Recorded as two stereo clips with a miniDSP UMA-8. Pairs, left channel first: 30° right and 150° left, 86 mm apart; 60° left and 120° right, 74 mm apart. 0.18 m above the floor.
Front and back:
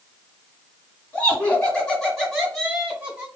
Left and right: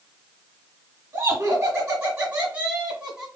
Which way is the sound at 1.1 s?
90° right.